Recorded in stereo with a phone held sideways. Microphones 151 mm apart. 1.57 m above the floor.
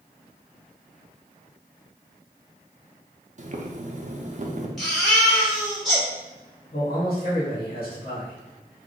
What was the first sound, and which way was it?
Boiling, 50° right (ahead or behind).